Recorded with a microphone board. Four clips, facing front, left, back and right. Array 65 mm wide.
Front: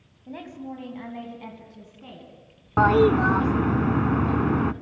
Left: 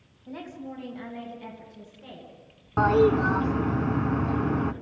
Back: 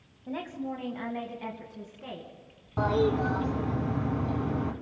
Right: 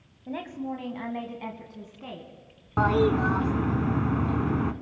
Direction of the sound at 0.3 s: 105° right.